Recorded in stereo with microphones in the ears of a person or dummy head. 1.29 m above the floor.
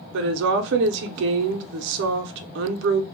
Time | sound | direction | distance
0.1 | a woman speaking | 60° right (ahead or behind) | 0.6 m